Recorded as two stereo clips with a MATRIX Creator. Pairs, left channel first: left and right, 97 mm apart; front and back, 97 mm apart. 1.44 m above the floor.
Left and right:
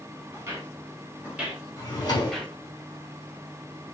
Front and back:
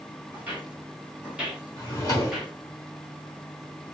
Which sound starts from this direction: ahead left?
A drawer, at 1.8 s.